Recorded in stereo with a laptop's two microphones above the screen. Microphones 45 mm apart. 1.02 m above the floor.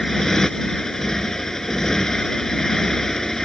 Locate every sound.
0.0 s a motorcycle: 10° left (ahead or behind)